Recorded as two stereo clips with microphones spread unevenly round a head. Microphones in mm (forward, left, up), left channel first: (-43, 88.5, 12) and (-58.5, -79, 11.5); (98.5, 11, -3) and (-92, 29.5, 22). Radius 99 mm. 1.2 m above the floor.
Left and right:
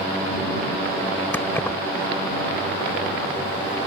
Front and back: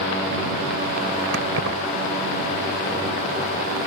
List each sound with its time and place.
1.3 s keys jangling: 165° left